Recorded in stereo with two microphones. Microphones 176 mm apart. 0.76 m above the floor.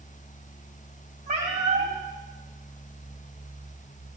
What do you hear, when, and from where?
1.3 s a cat meowing: 75° right (ahead or behind), 4 m